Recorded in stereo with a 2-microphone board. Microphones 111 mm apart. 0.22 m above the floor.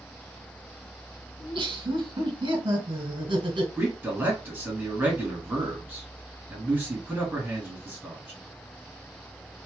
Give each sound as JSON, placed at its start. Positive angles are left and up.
{"t": 1.4, "sound": "laughter", "side_deg": -50, "distance_m": 1.5}
{"t": 3.8, "sound": "a man speaking", "side_deg": -15, "distance_m": 1.8}